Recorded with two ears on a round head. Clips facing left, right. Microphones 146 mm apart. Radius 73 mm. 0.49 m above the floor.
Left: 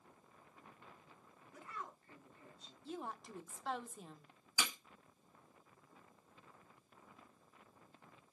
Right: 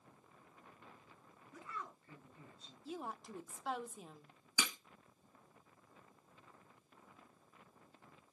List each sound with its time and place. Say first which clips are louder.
1.5 s a woman speaking: right 1 dB; 75° right (ahead or behind), 5.5 m
2.9 s a woman speaking: right 1 dB; 5° right (ahead or behind), 0.7 m
4.6 s breaking glass: right 1 dB; 85° right, 5 m